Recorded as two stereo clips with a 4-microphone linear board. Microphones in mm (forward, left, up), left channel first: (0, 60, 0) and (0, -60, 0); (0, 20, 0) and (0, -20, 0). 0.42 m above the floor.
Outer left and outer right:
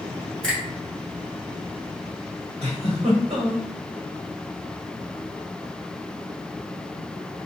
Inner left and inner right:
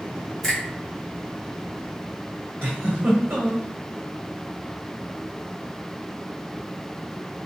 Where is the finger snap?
10° left (ahead or behind), 1.6 m.